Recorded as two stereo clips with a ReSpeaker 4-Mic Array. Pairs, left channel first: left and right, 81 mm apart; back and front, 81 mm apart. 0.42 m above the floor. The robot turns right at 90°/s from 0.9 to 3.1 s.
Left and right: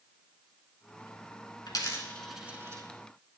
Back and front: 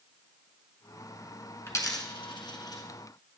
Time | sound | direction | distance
1.7 | a dropped coin | 120° left | 1.5 m